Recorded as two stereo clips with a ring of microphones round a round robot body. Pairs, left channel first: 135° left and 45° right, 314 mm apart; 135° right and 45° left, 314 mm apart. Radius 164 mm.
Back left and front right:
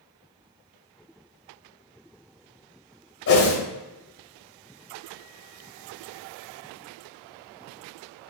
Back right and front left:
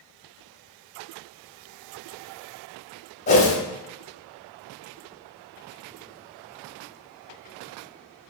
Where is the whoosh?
165° left, 1.2 m.